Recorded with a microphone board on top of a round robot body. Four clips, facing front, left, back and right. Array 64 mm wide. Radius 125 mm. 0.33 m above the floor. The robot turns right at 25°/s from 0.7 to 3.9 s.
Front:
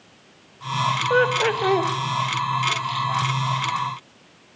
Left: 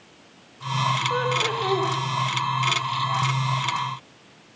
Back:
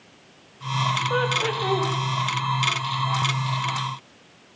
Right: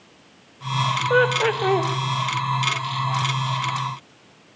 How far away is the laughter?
About 1.9 m.